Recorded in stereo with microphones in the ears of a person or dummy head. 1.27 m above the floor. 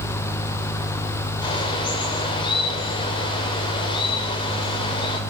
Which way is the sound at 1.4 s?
30° left (ahead or behind).